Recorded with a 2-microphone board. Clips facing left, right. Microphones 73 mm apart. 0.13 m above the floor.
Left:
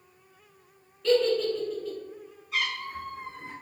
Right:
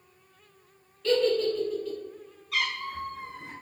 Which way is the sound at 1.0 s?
Centre (ahead or behind).